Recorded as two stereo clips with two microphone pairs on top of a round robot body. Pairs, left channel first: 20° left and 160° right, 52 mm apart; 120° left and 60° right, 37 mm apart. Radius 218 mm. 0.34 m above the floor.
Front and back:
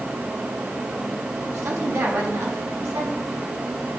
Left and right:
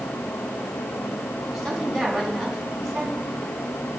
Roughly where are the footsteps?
No footsteps in this recording.